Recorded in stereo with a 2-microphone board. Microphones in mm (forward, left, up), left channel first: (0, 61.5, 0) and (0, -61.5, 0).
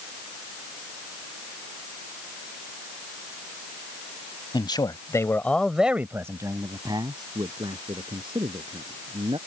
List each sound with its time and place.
4.5 s a man speaking: 40° left (ahead or behind); by 9.4 s 45° right (ahead or behind)